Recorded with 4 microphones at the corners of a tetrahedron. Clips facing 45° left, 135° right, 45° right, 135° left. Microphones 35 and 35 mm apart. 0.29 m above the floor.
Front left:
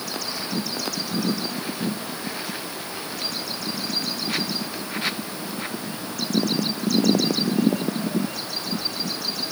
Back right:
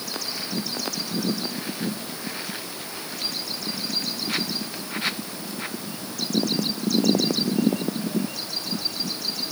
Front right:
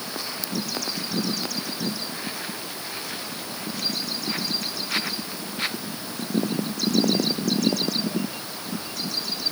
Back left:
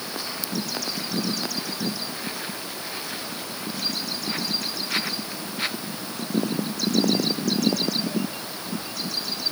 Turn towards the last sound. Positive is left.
No sound to turn to.